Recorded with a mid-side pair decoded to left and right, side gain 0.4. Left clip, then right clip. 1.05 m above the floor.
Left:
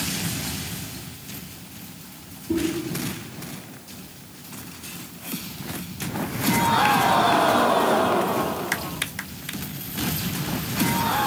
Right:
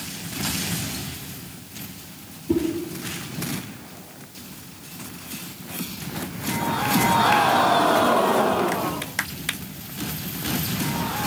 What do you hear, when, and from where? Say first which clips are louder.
2.5 s a whoosh: right 2 dB; 40° right, 3.5 m